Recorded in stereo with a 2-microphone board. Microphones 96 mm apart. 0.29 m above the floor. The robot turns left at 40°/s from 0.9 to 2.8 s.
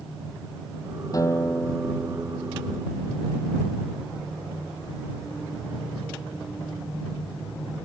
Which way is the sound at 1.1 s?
35° left.